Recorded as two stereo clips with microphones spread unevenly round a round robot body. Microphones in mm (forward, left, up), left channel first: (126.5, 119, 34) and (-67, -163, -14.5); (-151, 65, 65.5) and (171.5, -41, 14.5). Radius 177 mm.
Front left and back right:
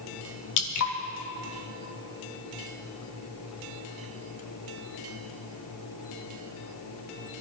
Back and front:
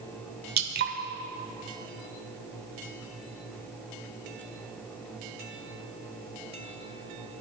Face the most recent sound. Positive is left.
turn(degrees=25)